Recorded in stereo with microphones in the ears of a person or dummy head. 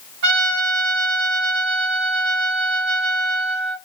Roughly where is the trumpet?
Right.